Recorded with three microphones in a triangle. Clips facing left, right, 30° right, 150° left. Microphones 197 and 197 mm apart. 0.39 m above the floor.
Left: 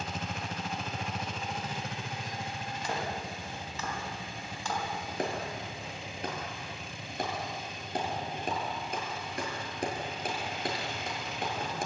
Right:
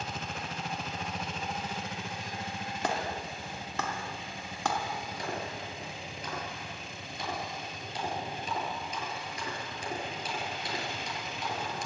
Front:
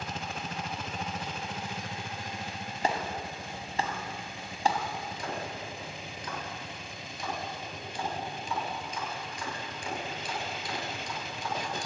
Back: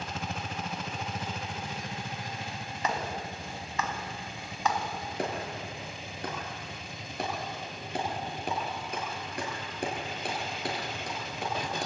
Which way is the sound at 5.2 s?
125° left.